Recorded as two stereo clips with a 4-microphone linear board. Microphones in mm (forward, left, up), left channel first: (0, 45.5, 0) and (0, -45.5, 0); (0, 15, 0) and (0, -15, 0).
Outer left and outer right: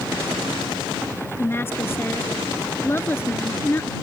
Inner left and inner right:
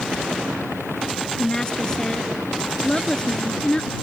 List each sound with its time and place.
1.4 s a woman speaking: 25° left (ahead or behind)